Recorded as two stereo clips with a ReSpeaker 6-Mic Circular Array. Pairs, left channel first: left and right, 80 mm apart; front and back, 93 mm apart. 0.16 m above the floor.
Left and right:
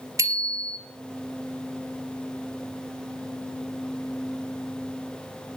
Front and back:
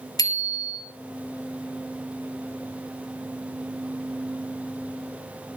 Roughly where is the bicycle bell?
Ahead right.